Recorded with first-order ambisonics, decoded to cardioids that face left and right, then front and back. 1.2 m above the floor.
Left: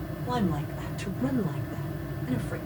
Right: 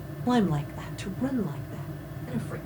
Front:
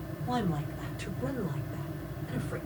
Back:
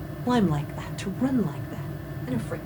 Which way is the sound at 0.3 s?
150° right.